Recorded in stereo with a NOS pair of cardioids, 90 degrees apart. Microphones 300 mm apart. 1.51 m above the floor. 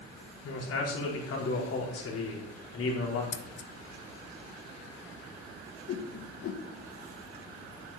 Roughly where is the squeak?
No squeak in this recording.